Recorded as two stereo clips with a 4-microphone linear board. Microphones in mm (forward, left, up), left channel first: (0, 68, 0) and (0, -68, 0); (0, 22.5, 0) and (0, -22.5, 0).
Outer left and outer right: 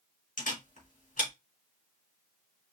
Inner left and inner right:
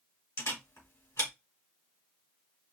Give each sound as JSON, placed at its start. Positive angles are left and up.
{"t": 0.4, "sound": "a camera shutter", "side_deg": 75, "distance_m": 2.5}